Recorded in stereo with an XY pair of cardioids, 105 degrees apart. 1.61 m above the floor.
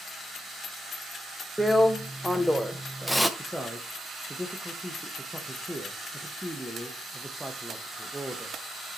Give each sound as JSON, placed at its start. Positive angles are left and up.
{"t": 1.6, "sound": "a drill", "azimuth_deg": 0, "distance_m": 0.6}
{"t": 3.4, "sound": "a man speaking", "azimuth_deg": 0, "distance_m": 0.8}